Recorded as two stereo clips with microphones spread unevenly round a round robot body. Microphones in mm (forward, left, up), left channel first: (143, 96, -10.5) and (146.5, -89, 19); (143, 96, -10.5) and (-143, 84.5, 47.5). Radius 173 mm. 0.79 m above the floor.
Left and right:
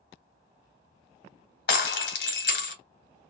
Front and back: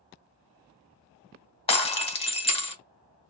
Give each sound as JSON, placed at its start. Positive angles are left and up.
{"t": 1.7, "sound": "breaking glass", "azimuth_deg": 75, "distance_m": 1.3}